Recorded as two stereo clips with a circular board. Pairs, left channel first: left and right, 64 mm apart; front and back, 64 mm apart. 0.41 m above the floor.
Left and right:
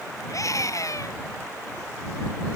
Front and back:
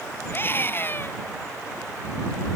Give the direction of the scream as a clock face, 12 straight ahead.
10 o'clock.